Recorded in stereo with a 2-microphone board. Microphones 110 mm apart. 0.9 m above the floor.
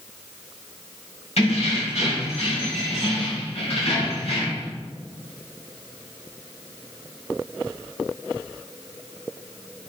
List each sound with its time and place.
1.4 s keys jangling: 85° left, 3.5 m; by 4.7 s 70° left (ahead or behind), 4.5 m